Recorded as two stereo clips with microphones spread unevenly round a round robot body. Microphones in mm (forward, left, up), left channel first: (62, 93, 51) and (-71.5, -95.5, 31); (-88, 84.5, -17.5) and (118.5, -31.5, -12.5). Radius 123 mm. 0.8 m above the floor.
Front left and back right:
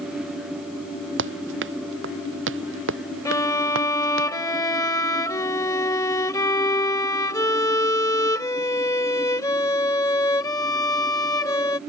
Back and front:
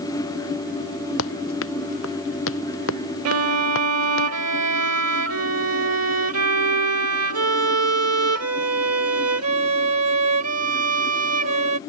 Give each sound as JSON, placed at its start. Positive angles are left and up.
{"t": 1.2, "sound": "running footsteps", "azimuth_deg": -170}
{"t": 3.2, "sound": "a violin", "azimuth_deg": -20}